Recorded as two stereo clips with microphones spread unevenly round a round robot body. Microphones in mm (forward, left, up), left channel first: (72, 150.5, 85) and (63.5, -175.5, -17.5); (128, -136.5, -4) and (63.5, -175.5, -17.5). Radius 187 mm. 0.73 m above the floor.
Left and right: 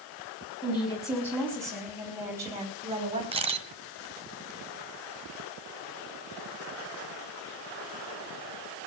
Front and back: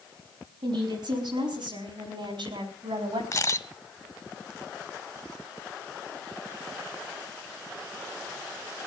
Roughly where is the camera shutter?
Ahead.